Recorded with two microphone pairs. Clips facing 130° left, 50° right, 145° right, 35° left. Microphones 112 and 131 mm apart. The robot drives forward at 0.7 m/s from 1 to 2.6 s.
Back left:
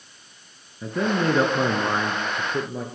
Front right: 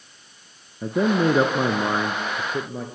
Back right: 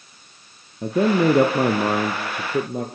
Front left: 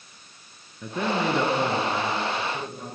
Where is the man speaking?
105° right, 1.6 m; by 2.9 s 140° right, 2 m.